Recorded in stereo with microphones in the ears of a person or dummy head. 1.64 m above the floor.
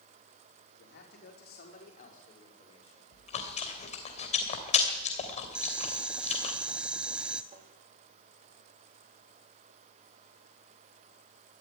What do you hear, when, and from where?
0.8 s a man speaking: 60° left (ahead or behind), 4.5 m; by 3.0 s 30° left (ahead or behind), 6 m
3.1 s chewing: 40° left (ahead or behind), 3 m
5.5 s boiling: 5° right (ahead or behind), 1.1 m
7.5 s tapping: 40° right (ahead or behind), 4 m